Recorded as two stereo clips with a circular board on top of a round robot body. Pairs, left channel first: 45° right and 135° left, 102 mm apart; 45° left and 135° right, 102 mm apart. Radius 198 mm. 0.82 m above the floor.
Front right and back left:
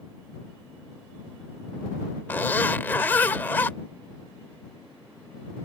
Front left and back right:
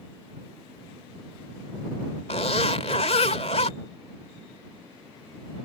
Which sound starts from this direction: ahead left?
A zipper, at 2.3 s.